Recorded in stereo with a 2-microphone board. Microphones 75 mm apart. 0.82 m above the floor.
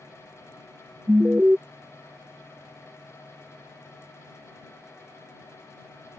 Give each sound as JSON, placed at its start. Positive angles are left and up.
{"t": 1.1, "sound": "an alarm", "side_deg": -15}